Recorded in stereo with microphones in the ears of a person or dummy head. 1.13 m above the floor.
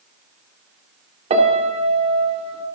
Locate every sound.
1.3 s a piano: 25° right (ahead or behind), 2.5 m